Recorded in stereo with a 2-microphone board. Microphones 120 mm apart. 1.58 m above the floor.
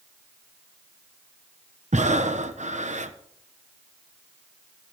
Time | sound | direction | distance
1.9 | breathing | 75° right (ahead or behind) | 1.2 m